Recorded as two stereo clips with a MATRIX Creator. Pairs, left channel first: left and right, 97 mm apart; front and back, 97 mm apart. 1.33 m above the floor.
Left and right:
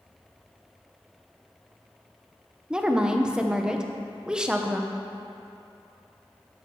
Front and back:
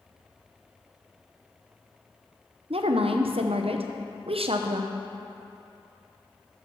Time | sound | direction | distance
2.7 | a woman speaking | 170° right | 0.6 m